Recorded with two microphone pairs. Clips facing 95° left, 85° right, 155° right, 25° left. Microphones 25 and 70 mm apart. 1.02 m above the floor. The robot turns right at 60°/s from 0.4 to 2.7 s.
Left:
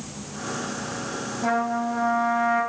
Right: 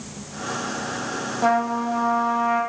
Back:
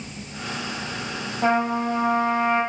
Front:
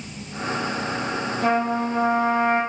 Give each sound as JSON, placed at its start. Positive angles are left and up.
{"t": 1.4, "sound": "a trumpet", "azimuth_deg": -95, "distance_m": 0.9}